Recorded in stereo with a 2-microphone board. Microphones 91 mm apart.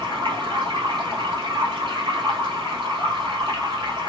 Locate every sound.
0.0 s running water: 60° right (ahead or behind), 1.8 m